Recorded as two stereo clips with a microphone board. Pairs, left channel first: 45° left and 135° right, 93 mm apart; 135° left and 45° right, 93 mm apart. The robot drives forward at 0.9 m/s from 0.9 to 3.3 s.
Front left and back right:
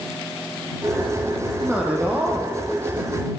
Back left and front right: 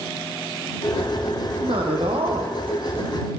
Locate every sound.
1.6 s a man speaking: 60° right, 4.5 m; by 3.3 s 80° right, 4 m